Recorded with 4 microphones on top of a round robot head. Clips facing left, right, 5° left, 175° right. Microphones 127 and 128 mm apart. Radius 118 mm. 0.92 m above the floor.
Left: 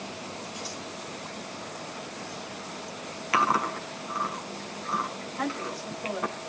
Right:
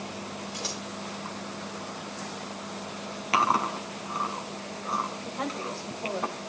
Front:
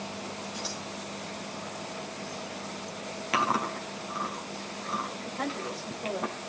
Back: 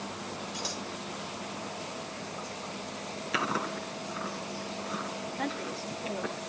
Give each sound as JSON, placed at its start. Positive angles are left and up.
{"t": 0.5, "sound": "scissors", "azimuth_deg": -100, "distance_m": 4.0}
{"t": 3.3, "sound": "chewing", "azimuth_deg": -25, "distance_m": 4.5}
{"t": 5.2, "sound": "a woman speaking", "azimuth_deg": -25, "distance_m": 6.0}